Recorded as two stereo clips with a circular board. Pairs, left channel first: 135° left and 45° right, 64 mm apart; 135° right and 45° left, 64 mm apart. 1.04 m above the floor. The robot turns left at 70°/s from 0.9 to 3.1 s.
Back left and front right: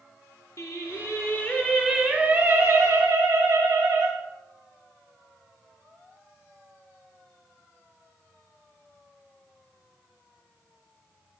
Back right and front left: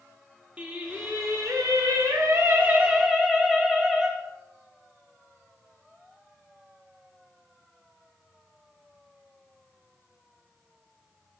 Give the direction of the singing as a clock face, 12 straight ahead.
8 o'clock.